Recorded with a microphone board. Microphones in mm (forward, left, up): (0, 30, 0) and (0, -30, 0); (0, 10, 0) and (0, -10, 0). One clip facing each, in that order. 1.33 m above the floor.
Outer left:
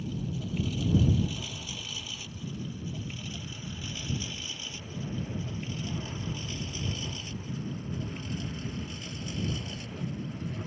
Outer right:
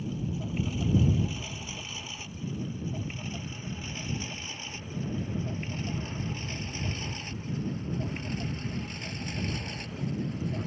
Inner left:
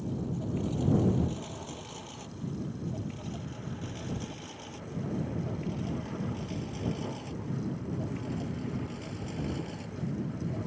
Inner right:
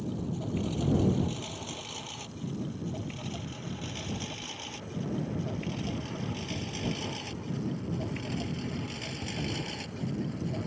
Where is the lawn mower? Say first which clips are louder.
Outer right 1 dB, even; 25° right (ahead or behind); by 10.7 s 60° right (ahead or behind).